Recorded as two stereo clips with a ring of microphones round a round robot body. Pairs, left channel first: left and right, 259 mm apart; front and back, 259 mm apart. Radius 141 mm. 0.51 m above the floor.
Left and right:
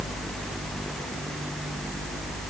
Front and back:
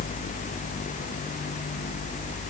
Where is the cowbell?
I don't hear a cowbell.